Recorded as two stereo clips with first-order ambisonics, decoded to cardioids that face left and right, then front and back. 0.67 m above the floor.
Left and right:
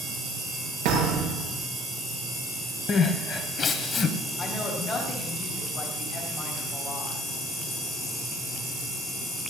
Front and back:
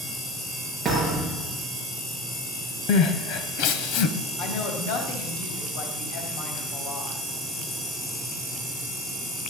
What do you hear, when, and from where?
0.8 s a thud: 95° right, 7 m
2.9 s crying: 25° left, 1.5 m
4.4 s a woman speaking: 10° left, 4 m